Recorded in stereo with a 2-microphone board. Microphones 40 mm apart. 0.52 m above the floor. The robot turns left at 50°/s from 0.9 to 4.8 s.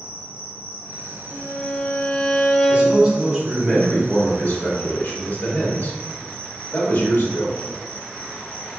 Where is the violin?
30° left (ahead or behind), 0.6 m; by 3.0 s centre (ahead or behind), 0.6 m.